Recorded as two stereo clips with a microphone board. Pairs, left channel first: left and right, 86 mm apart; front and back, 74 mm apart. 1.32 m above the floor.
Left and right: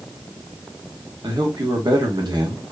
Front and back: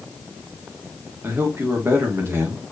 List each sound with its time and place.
1.2 s a man speaking: 125° right, 1.5 m